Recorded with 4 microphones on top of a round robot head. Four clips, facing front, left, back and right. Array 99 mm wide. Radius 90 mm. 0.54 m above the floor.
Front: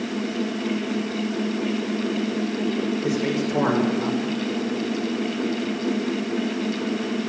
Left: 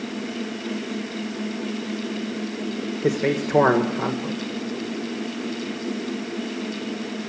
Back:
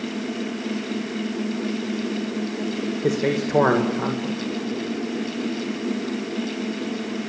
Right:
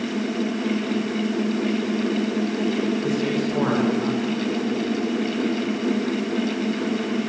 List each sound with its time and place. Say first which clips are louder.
3.0 s a man speaking: left 1 dB, back 1 dB; 125° left, 2 m